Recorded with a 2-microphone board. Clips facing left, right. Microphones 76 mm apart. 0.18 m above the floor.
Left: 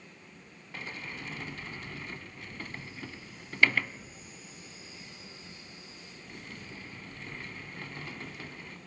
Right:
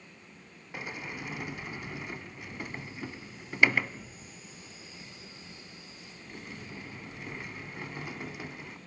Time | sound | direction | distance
0.7 | a sliding door | 15° right (ahead or behind) | 0.6 m